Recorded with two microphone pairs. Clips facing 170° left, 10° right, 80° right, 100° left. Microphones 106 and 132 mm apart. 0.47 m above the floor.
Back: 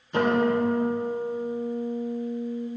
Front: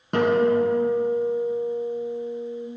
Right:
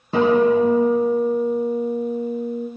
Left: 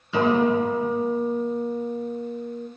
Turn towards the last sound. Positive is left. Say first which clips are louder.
# front 3 dB, right 4 dB
turn(degrees=-35)